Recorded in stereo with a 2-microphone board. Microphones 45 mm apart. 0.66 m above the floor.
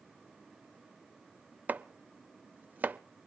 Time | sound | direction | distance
1.7 | chopping | 40° right (ahead or behind) | 0.5 m